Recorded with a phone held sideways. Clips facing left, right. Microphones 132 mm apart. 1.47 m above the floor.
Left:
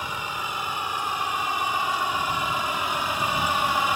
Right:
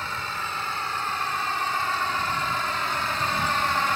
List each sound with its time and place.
0.0 s a vehicle: 15° left (ahead or behind)